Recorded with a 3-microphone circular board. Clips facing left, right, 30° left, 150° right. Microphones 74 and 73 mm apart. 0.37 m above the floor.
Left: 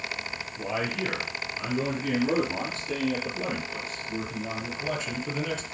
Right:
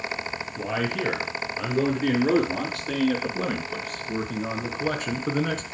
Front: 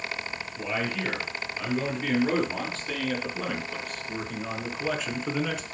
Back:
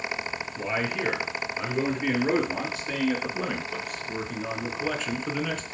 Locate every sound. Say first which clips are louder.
0.6 s a man speaking: right 2 dB, back 1 dB; 85° right, 5 m; by 5.7 s 55° right, 3 m